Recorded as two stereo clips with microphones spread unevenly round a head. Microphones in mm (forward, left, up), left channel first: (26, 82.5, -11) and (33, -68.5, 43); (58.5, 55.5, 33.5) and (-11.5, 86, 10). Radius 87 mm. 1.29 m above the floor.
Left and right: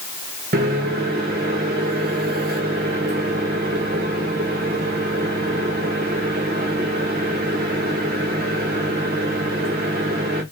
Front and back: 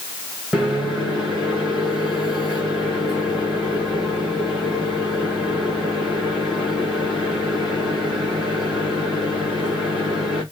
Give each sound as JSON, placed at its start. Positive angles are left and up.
{"t": 0.5, "sound": "a microwave", "azimuth_deg": -115, "distance_m": 0.8}